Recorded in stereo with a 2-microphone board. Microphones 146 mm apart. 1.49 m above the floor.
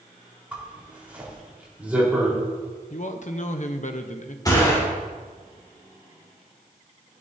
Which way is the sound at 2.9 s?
55° left (ahead or behind).